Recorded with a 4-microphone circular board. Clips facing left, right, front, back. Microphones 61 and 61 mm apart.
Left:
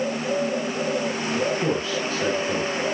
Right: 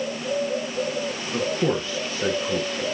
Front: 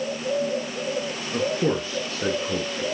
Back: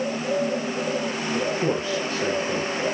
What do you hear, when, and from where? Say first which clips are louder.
1.3 s a man speaking: right 1 dB, front 2 dB; 30° right, 1.9 m